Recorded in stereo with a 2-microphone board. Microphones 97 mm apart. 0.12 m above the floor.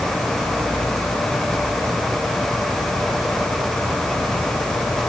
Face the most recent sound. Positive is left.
No sound to turn to.